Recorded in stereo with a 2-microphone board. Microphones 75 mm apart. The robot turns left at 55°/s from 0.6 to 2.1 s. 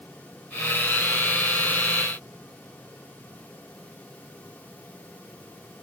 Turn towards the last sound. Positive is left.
No sound to turn to.